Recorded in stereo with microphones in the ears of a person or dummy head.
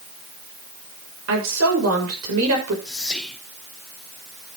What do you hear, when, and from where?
1.3 s a woman speaking: 75° right (ahead or behind), 5.5 m
2.9 s whispering: 5° left (ahead or behind), 1.4 m